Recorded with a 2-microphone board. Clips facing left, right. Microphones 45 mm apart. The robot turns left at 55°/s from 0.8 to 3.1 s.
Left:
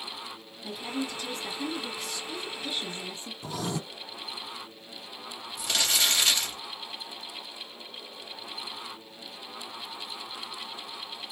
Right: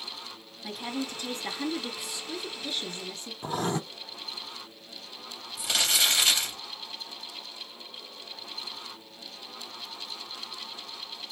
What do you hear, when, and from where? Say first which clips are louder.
0.6 s a woman speaking: even; 95° right, 1.5 m; by 3.3 s 140° left, 1.5 m
3.4 s writing: right 4 dB; 40° right (ahead or behind), 0.6 m
5.6 s crumpling: right 1 dB; 5° right (ahead or behind), 3 m